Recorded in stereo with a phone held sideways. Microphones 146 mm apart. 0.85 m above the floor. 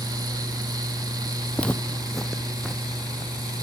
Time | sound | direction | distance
0.0 | a fan | 25° right (ahead or behind) | 0.7 m
1.6 | footsteps | 10° left (ahead or behind) | 1.2 m